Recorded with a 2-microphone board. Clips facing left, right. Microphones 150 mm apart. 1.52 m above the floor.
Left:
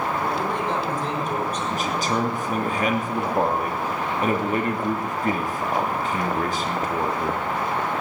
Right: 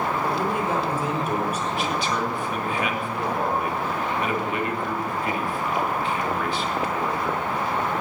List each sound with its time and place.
0.2 s a man speaking: 10° right (ahead or behind), 5 m
1.7 s a man speaking: 40° left (ahead or behind), 3 m